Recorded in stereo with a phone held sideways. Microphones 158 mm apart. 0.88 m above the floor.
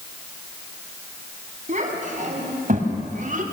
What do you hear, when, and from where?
1.7 s a child speaking: 50° right (ahead or behind), 5 m; by 3.4 s 55° right (ahead or behind), 3 m